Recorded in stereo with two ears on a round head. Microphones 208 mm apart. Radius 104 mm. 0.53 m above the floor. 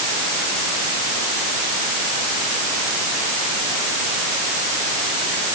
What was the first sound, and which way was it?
Only background noise.